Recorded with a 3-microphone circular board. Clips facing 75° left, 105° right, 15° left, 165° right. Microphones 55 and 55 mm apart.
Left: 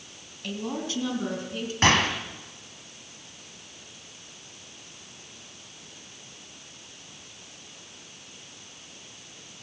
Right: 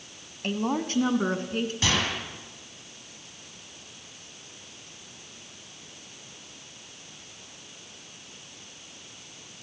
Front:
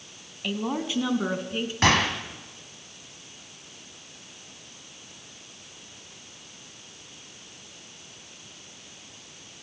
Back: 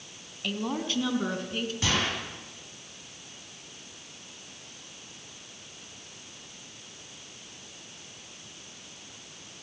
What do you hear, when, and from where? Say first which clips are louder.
0.4 s a woman speaking: right 4 dB, front 2 dB; 65° right, 2 m; by 1.7 s 60° right, 3.5 m
1.8 s a gunshot: left 8 dB, front 8 dB; 35° left, 3 m